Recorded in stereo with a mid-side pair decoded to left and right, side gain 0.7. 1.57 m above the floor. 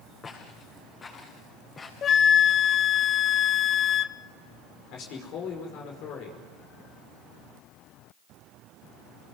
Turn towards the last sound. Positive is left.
turn(degrees=60)